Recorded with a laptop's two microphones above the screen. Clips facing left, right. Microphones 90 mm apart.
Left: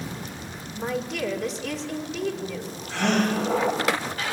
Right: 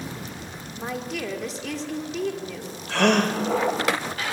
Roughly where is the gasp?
Right.